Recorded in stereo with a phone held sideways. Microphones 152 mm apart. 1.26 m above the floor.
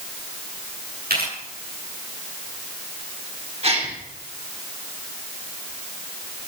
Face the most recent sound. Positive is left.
turn(degrees=-40)  # may be behind; listen again after turning